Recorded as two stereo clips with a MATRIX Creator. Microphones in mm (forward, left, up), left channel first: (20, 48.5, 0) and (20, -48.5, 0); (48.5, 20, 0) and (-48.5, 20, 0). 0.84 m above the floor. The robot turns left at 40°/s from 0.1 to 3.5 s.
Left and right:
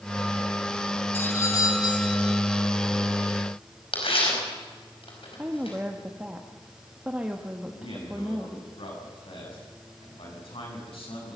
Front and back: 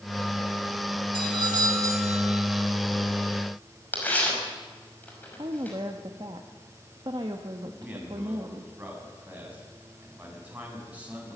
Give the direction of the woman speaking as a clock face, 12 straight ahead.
5 o'clock.